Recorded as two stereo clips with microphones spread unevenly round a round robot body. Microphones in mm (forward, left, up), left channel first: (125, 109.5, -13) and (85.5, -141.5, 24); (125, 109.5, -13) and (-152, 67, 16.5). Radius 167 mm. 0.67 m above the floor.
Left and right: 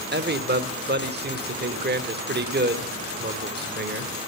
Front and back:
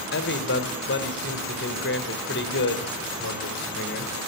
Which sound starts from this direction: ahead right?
A man speaking, at 0.1 s.